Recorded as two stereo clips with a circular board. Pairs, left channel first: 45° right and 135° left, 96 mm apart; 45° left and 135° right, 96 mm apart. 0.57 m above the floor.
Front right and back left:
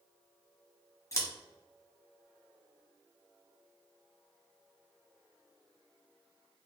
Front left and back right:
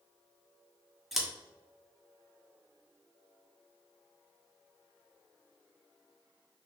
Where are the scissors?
50° right, 1.0 m.